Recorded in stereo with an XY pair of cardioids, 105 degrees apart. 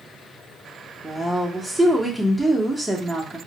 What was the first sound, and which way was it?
A woman speaking, straight ahead.